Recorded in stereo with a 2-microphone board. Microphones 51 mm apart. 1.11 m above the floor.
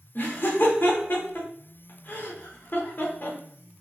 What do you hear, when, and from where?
0.1 s laughter: 45° left (ahead or behind), 0.8 m